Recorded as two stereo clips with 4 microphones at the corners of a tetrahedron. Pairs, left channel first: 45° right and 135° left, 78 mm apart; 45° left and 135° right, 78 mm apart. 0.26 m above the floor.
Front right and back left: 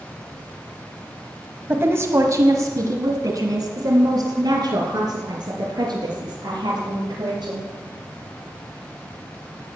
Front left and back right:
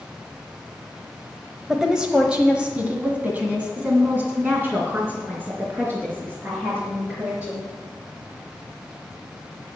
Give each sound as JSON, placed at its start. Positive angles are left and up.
{"t": 1.7, "sound": "a woman speaking", "azimuth_deg": 145, "distance_m": 1.1}